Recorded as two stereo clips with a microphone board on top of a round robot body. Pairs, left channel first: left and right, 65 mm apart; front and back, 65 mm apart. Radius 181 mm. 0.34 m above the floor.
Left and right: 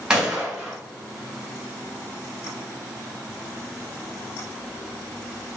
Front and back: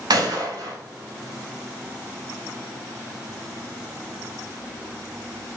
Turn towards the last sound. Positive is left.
turn(degrees=-170)